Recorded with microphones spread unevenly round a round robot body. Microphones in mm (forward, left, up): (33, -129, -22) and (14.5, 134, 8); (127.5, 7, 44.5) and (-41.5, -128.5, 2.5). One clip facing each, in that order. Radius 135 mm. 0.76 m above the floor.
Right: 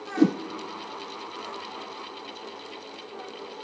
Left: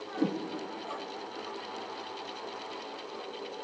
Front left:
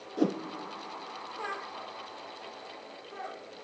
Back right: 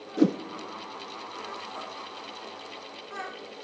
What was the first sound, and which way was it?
A whoosh, 85° right.